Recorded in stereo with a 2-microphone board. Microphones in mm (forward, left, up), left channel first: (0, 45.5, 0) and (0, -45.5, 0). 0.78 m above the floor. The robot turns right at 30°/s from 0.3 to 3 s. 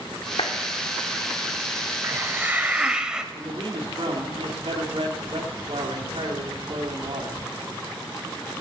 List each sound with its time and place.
0.4 s a clap: 65° left (ahead or behind), 1.8 m; by 0.5 s 70° left (ahead or behind), 1.8 m
2.0 s a hiss: 25° right (ahead or behind), 0.6 m; by 3.2 s 10° right (ahead or behind), 0.6 m
3.3 s a man speaking: 70° right (ahead or behind), 2 m